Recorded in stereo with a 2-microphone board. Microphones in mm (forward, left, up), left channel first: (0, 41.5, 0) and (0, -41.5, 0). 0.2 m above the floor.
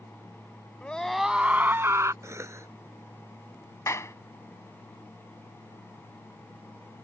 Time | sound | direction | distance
0.8 | a scream | 15° left (ahead or behind) | ?
2.2 | a cough | 35° right (ahead or behind) | ?
3.9 | a clap | 40° left (ahead or behind) | ?